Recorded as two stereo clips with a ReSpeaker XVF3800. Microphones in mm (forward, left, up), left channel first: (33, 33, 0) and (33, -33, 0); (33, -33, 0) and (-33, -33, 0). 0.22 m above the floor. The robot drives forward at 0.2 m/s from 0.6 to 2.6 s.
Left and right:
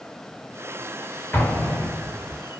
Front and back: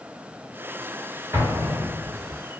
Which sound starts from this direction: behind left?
An explosion, at 1.3 s.